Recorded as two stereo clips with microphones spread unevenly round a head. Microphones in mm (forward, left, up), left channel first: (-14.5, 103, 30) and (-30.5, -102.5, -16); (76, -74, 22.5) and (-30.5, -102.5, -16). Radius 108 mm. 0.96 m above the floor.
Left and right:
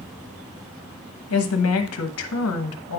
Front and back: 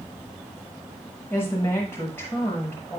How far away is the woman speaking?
About 1.2 m.